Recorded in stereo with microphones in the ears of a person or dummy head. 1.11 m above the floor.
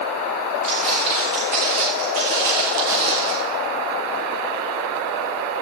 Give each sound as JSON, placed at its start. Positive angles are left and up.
{"t": 0.6, "sound": "footsteps", "side_deg": -35, "distance_m": 7.0}